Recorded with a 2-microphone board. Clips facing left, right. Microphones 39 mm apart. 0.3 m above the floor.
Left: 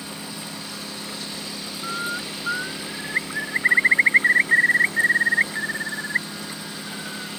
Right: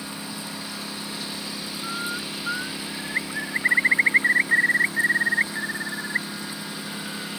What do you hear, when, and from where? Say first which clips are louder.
0.0 s a lawn mower: even; 10° right (ahead or behind)
1.8 s a bird: left 3 dB; 10° left (ahead or behind)